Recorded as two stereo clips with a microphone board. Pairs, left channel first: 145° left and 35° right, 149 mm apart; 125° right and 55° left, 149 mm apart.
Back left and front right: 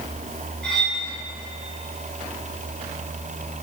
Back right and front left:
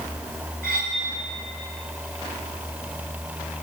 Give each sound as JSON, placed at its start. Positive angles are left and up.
{"t": 0.6, "sound": "cutlery clinking", "azimuth_deg": 60, "distance_m": 2.5}